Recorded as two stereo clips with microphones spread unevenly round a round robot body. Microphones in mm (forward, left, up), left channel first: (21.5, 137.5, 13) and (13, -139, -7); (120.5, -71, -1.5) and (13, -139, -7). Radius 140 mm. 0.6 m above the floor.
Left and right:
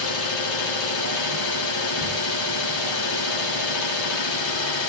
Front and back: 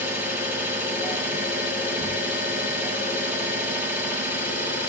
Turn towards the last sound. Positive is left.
turn(degrees=60)